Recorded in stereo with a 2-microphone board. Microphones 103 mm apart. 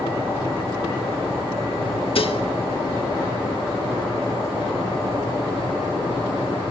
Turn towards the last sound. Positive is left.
turn(degrees=65)  # may be behind; listen again after turning